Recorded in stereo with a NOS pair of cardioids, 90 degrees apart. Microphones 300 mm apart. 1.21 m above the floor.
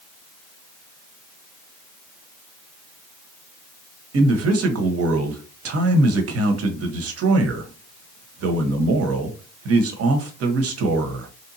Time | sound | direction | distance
4.1 | a man speaking | 50° right | 1.0 m